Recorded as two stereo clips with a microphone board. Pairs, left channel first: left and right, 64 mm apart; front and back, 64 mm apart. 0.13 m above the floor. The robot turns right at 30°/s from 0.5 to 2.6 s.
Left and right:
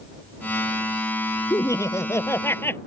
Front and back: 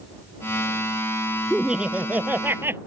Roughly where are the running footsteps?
I don't hear running footsteps.